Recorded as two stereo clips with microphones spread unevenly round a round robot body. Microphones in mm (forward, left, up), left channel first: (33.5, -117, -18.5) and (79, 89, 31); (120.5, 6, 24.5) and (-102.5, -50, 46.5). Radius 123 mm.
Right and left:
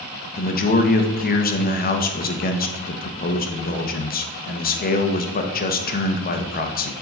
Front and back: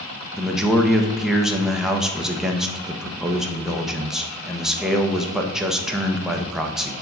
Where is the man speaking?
75° right, 1.2 m.